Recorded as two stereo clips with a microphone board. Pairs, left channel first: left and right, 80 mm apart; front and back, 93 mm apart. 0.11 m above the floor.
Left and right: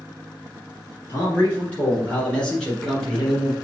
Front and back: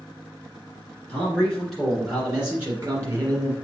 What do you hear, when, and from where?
1.1 s a man speaking: 60° left, 1.9 m; by 3.5 s 175° right, 2.0 m